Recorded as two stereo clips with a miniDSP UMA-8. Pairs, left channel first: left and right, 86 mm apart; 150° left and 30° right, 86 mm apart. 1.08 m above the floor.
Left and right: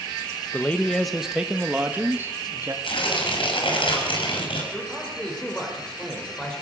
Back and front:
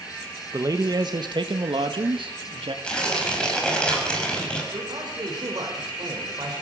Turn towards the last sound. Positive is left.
turn(degrees=10)